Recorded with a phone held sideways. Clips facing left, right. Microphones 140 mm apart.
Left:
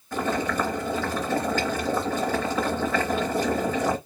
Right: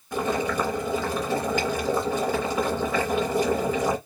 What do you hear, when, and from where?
0.1 s boiling: 15° right (ahead or behind), 3 m